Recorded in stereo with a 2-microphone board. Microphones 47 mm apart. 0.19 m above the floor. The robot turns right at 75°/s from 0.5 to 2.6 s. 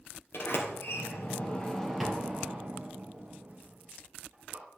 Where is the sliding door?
65° left (ahead or behind), 3 m; by 4.7 s 45° right (ahead or behind), 3 m.